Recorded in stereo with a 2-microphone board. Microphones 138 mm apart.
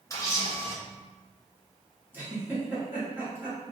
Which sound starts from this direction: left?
A camera shutter, at 0.1 s.